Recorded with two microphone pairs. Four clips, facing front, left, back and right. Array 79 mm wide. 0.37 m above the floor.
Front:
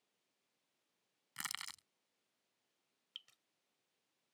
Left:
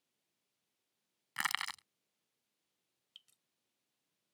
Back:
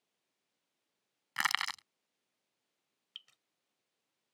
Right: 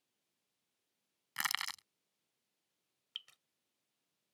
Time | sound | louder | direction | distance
1.4 | crushing | left 2 dB, back 15 dB | 170° left | ?
3.1 | dripping | right 13 dB, back 3 dB | 100° right | ?